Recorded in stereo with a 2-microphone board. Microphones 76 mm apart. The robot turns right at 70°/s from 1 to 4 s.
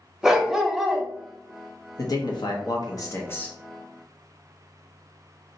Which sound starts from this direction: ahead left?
A man speaking, at 2.0 s.